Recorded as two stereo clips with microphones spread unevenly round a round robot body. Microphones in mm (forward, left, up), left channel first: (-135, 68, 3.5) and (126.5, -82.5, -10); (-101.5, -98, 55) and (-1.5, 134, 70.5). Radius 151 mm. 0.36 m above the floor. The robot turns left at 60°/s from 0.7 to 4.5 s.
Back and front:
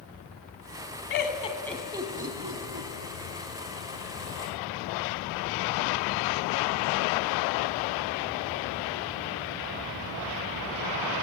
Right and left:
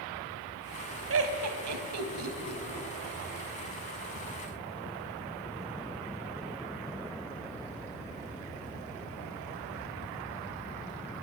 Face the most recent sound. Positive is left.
turn(degrees=-105)